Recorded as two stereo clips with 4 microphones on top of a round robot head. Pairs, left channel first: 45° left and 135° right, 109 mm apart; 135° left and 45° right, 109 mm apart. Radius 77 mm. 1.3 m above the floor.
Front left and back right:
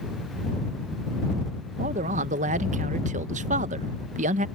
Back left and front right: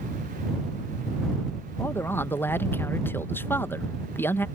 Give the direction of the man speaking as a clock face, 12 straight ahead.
5 o'clock.